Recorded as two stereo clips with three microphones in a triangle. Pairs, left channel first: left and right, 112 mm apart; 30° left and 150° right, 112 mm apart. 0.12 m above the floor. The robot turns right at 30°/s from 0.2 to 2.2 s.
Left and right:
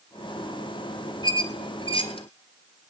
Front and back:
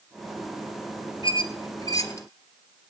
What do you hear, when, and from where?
1.2 s a squeak: 55° left, 0.9 m; by 2.3 s 85° left, 0.9 m